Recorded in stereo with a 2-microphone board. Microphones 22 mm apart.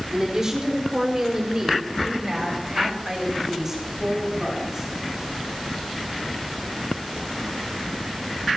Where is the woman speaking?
25° right (ahead or behind), 4 m; by 4.9 s 20° right (ahead or behind), 7.5 m.